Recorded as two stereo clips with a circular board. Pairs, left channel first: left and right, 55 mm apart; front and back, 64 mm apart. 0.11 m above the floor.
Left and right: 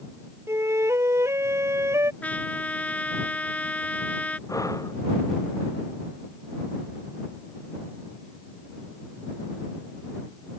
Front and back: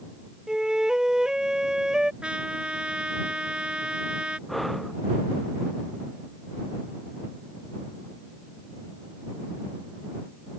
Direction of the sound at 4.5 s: 90° left.